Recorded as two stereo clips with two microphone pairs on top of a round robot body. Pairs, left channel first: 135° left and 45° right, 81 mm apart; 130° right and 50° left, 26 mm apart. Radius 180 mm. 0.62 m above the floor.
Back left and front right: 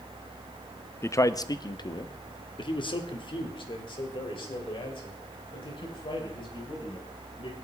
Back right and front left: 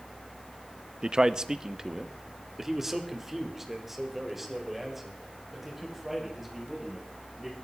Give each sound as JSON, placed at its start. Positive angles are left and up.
{"t": 1.0, "sound": "a man speaking", "azimuth_deg": 85, "distance_m": 0.8}